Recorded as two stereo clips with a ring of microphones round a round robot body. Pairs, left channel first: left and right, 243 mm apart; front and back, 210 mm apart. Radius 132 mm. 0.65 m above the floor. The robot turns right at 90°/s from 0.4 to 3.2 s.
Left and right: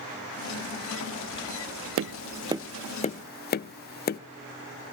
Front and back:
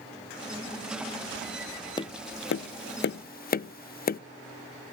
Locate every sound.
2.0 s tapping: 65° right, 0.5 m; by 4.2 s 45° left, 0.5 m